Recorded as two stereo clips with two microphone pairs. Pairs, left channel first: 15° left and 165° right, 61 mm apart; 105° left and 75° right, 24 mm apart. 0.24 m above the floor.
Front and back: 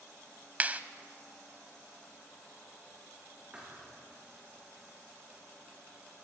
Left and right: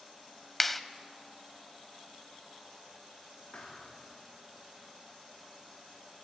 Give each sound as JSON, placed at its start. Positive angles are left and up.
{"t": 0.6, "sound": "a clap", "azimuth_deg": 170, "distance_m": 0.8}
{"t": 3.5, "sound": "a thud", "azimuth_deg": 120, "distance_m": 6.5}